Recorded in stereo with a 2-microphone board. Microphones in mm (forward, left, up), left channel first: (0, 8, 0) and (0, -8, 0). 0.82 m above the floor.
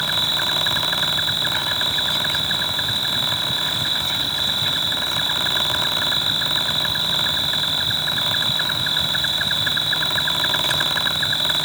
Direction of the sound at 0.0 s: 10° left (ahead or behind).